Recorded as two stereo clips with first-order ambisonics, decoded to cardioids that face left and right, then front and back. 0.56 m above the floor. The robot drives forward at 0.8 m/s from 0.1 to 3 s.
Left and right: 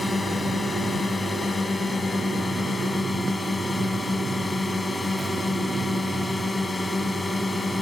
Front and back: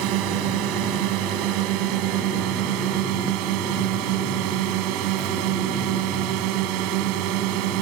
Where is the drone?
170° left.